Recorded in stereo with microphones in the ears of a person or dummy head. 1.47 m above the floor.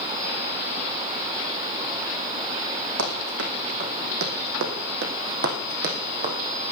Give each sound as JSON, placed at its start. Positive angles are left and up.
{"t": 3.0, "sound": "running footsteps", "side_deg": -60, "distance_m": 5.5}